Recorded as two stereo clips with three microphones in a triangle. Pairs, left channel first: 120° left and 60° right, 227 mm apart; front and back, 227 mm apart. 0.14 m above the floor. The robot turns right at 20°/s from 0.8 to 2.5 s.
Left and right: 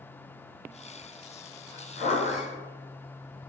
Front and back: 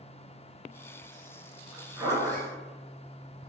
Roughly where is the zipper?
Left.